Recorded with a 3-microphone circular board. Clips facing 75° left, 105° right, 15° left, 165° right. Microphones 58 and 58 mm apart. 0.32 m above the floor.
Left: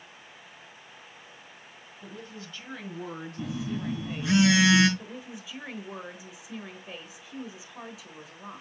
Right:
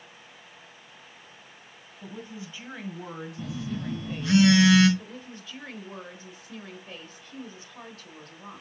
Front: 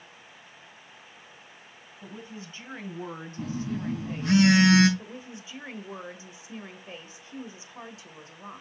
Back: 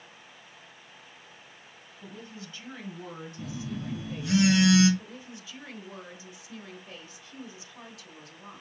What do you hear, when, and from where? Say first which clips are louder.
2.0 s a woman speaking: right 3 dB, front 2 dB; 50° right, 1.8 m; by 4.4 s straight ahead, 2.5 m
3.4 s a phone buzzing: left 2 dB, front 5 dB; straight ahead, 3 m
5.0 s a woman speaking: left 1 dB, front 3 dB; 5° left, 1.2 m